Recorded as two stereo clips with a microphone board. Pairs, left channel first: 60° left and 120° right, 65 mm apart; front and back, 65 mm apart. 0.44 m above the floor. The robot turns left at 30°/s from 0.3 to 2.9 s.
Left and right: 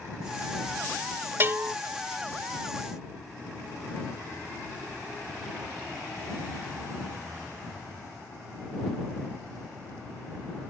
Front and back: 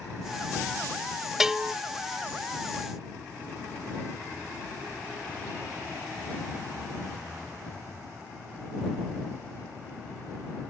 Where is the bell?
100° right; by 1.7 s 110° right.